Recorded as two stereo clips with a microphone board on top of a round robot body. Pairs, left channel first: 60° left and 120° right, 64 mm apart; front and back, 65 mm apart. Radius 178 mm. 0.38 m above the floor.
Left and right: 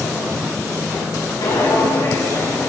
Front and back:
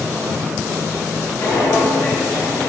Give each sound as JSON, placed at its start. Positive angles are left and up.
{"t": 1.4, "sound": "footsteps", "azimuth_deg": 45, "distance_m": 4.0}